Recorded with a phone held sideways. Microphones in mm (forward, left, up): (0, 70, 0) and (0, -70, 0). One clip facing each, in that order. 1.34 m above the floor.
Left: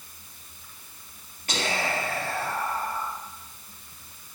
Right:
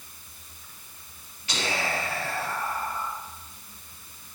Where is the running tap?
No running tap in this recording.